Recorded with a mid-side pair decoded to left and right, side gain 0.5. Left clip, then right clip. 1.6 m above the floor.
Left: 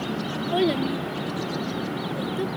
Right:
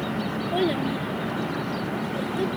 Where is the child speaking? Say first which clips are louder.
Left 2 dB; 20° left; by 2.5 s straight ahead.